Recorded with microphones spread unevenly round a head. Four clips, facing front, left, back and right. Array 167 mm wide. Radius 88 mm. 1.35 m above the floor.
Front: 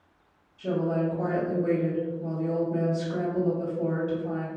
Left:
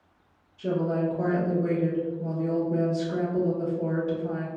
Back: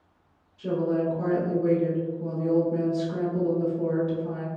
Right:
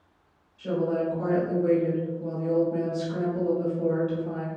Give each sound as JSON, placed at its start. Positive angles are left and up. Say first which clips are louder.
{"t": 0.6, "sound": "a woman speaking", "louder": "even, back 1 dB", "azimuth_deg": 105, "distance_m": 1.2}